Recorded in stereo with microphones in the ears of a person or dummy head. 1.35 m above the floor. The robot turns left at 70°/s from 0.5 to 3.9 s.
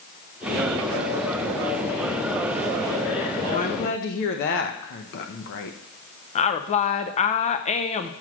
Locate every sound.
3.4 s a woman speaking: 155° left, 0.9 m; by 5.8 s 120° left, 0.9 m
6.3 s a woman speaking: 30° left (ahead or behind), 0.6 m